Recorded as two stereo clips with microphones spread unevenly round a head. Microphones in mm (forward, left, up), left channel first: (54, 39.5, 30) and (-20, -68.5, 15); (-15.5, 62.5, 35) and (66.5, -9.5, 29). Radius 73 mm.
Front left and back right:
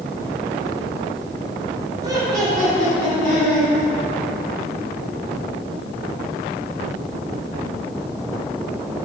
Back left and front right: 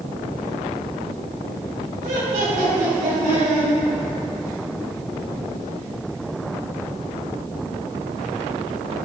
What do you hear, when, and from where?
2.0 s laughter: 60° right, 3 m